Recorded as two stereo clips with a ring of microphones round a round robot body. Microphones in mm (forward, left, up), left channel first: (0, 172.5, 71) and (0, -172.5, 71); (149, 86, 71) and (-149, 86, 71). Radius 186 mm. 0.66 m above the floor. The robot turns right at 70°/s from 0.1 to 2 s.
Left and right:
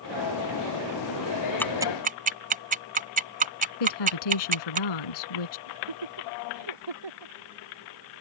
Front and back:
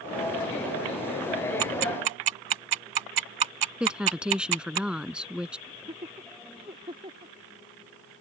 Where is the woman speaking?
95° left.